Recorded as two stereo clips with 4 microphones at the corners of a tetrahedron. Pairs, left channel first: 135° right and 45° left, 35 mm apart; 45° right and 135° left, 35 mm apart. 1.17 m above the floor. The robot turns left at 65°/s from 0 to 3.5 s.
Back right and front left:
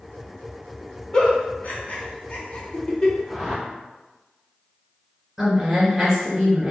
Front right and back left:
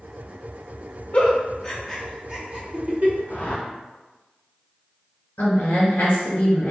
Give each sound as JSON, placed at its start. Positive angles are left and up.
{"t": 1.1, "sound": "a giggle", "azimuth_deg": -75, "distance_m": 0.8}
{"t": 3.3, "sound": "a whoosh", "azimuth_deg": -20, "distance_m": 1.3}
{"t": 5.4, "sound": "a woman speaking", "azimuth_deg": -35, "distance_m": 1.6}